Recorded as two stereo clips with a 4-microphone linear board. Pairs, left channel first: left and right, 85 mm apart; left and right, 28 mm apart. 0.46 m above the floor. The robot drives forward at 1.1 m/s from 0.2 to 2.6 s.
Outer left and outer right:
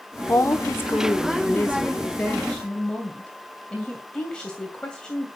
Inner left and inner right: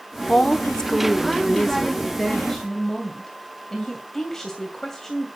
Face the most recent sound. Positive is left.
turn(degrees=10)  # may be behind; listen again after turning